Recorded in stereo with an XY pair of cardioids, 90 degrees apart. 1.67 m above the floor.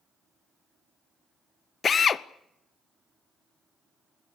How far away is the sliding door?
No sliding door in this recording.